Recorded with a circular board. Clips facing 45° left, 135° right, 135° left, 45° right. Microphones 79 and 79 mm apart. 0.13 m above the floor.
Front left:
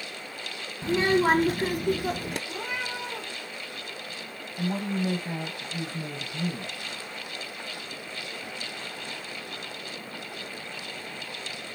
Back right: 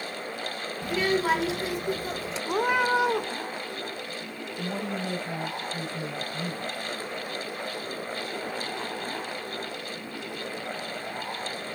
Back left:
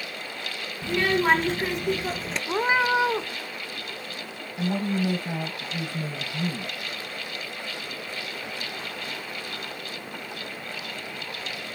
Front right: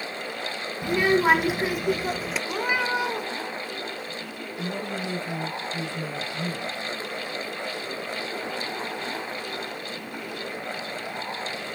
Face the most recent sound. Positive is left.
turn(degrees=95)